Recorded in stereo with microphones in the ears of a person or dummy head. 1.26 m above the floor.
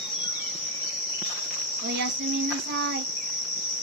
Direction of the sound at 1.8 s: 60° right (ahead or behind).